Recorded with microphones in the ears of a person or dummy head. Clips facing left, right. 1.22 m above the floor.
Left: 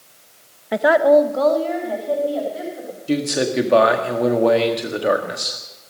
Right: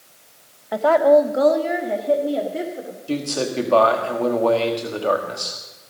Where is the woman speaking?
35° left (ahead or behind), 0.7 m; by 3.0 s 30° right (ahead or behind), 3.5 m.